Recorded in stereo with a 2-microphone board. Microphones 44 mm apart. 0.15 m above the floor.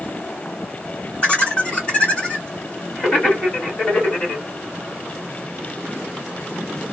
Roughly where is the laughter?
Left.